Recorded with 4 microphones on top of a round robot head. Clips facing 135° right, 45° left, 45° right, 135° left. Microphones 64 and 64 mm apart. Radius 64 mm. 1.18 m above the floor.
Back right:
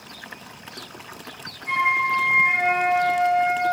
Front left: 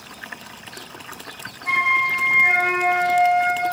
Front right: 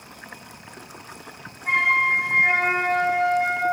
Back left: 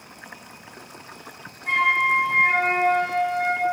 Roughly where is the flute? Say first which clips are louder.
Front left 1 dB, even; ahead left.